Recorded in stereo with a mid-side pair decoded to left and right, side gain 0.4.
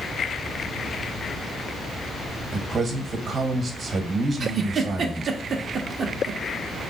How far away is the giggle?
About 0.8 m.